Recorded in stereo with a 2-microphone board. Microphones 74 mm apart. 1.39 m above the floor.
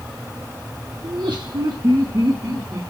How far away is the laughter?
About 0.8 m.